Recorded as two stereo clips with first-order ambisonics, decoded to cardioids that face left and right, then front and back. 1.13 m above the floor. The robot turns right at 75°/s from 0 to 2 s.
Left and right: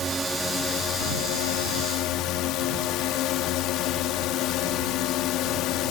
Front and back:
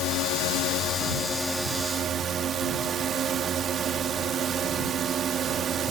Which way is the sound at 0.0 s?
30° right.